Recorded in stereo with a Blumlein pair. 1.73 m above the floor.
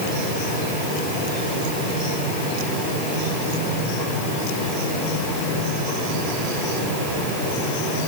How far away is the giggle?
No giggle in this recording.